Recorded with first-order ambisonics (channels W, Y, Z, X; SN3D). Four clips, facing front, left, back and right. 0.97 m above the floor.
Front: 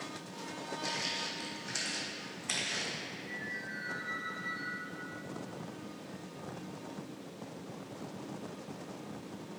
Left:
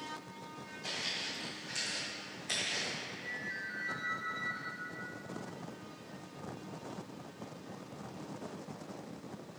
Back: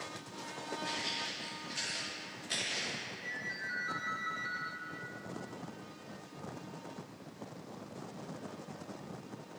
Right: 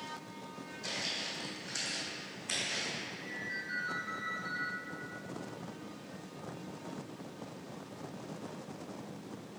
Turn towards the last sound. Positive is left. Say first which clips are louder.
# even, back 1 dB
turn(degrees=-155)